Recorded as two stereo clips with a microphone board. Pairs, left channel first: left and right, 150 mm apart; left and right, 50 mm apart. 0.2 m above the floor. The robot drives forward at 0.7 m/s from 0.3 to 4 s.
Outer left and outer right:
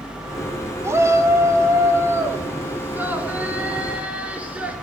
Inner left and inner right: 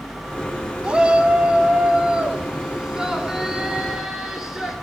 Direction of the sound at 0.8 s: 20° right (ahead or behind).